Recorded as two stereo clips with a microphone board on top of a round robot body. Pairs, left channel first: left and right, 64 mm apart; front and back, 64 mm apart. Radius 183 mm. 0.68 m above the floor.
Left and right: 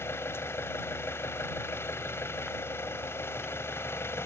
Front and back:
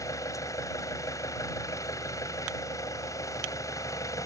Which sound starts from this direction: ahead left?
An engine running, at 0.0 s.